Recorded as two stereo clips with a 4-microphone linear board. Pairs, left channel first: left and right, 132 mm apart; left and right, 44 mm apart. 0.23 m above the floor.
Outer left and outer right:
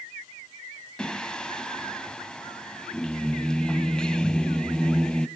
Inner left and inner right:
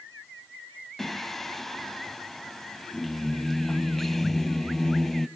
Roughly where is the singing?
Centre.